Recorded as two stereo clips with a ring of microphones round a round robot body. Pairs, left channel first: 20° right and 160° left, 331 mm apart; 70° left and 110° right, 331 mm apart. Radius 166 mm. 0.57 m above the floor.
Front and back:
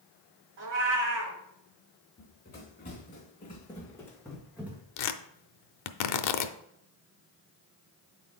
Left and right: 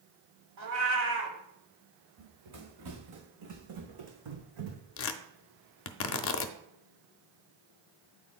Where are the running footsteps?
80° right, 2.5 m; by 4.8 s 120° right, 1.8 m.